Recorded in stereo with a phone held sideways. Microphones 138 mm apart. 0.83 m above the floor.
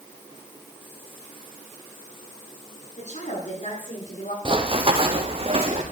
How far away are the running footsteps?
About 2.0 m.